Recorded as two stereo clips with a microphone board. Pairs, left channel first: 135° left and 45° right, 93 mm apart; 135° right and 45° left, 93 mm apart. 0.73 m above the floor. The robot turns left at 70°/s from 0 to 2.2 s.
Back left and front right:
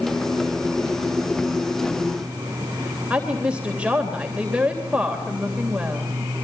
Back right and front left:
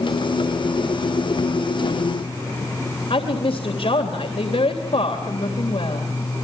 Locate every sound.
3.1 s a woman speaking: 125° right, 3 m